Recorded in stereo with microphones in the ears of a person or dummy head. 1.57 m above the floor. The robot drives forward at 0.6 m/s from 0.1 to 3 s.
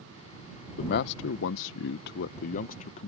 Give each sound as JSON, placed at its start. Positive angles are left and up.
{"t": 0.8, "sound": "a man speaking", "side_deg": 55}